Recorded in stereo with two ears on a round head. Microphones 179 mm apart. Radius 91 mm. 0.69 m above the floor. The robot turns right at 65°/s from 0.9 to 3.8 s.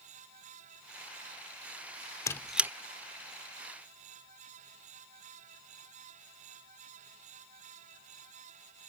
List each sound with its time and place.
2.3 s a squeak: 15° left (ahead or behind); by 2.7 s 10° right (ahead or behind)